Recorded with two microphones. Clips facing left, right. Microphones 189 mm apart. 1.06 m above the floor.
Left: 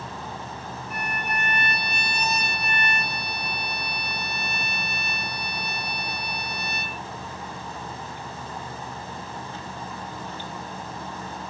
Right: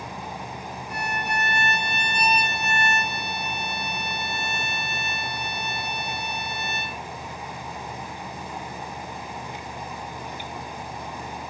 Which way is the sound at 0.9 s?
85° right.